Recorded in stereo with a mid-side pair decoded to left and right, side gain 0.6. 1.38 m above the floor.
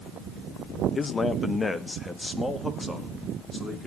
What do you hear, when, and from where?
0.9 s a man speaking: 25° left, 1.1 m; by 3.9 s 10° left, 3 m